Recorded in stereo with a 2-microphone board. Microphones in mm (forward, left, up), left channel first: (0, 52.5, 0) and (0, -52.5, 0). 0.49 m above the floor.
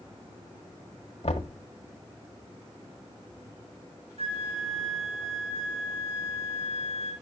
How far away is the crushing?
I don't hear crushing.